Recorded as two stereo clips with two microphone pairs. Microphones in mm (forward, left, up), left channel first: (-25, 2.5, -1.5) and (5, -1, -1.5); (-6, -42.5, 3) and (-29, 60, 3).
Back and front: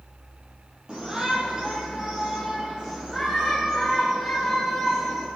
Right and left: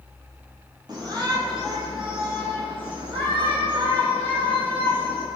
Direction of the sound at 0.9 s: 55° left.